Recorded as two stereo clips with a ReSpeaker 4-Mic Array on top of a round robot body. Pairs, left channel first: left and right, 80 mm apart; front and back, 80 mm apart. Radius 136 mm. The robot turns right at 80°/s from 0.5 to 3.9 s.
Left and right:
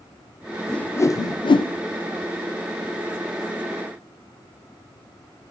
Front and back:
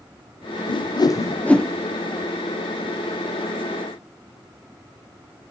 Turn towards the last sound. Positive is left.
turn(degrees=-95)